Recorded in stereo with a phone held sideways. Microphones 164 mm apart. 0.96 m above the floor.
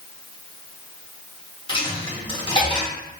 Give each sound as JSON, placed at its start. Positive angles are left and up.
{"t": 1.7, "sound": "a dropped coin", "side_deg": 30, "distance_m": 0.9}